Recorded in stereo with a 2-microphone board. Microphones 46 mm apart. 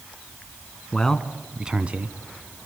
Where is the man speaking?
15° left (ahead or behind), 1.2 m; by 2.2 s 35° right (ahead or behind), 1.2 m.